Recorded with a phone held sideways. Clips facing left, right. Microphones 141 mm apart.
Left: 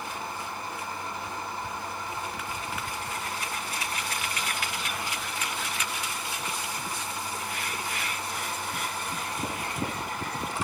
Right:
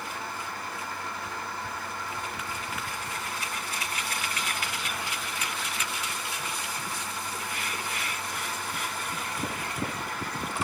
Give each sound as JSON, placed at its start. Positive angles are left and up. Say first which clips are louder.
{"t": 0.0, "sound": "a fan", "louder": "left 1 dB", "side_deg": 25, "distance_m": 3.5}